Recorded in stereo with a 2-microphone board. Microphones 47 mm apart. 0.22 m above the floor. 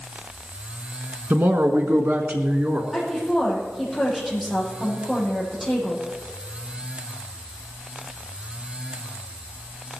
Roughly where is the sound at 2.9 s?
Centre.